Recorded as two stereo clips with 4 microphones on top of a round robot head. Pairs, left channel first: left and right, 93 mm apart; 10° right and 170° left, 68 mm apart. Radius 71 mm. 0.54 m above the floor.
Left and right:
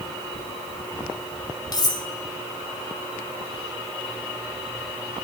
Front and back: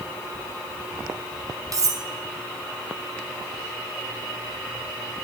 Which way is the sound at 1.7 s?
135° left.